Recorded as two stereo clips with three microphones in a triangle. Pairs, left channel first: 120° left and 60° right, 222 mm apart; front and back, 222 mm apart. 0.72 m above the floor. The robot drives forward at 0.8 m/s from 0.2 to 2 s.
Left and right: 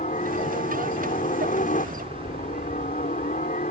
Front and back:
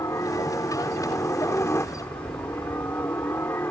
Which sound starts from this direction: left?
A helicopter, at 0.0 s.